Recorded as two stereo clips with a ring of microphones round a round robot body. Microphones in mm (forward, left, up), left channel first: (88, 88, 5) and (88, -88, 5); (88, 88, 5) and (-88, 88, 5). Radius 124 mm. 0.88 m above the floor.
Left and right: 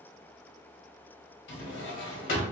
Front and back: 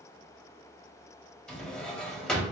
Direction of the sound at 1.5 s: 85° left.